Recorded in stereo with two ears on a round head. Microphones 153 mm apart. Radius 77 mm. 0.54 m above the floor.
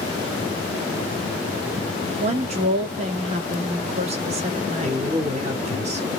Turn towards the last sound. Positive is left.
turn(degrees=-40)  # may be behind; listen again after turning